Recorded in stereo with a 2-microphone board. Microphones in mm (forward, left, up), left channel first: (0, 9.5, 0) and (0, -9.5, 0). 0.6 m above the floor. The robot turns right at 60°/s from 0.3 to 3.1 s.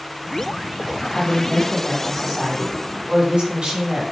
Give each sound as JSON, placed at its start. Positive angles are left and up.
{"t": 1.1, "sound": "a woman speaking", "azimuth_deg": 120, "distance_m": 4.0}